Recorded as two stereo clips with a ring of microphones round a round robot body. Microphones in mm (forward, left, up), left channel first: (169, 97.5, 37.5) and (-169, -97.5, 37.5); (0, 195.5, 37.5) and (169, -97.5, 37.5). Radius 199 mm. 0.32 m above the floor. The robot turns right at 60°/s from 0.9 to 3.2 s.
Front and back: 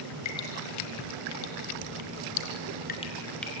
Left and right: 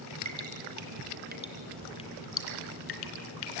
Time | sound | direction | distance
0.2 | dripping | 20° right | 3.5 m